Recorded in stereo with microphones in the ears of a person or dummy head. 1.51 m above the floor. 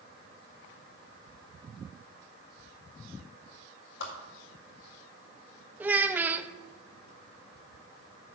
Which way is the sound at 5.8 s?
10° right (ahead or behind).